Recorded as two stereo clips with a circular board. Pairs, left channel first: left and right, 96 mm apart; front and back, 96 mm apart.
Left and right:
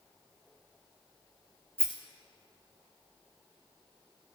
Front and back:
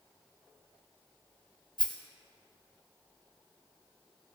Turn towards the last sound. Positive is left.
turn(degrees=-25)